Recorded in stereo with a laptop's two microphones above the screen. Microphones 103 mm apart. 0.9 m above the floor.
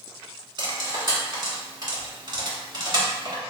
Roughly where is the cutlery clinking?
Right.